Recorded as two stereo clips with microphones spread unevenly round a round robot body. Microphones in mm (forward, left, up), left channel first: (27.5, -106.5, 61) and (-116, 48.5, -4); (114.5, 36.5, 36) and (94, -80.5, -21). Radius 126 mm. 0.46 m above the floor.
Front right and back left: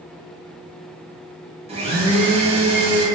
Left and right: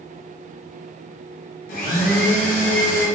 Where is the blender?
100° left, 0.5 m.